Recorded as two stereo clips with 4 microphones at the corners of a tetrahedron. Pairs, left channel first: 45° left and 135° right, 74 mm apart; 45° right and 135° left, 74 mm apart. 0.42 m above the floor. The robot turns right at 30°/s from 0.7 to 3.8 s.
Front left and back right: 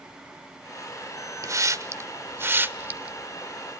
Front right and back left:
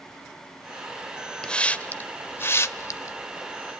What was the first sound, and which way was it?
A hiss, 120° right.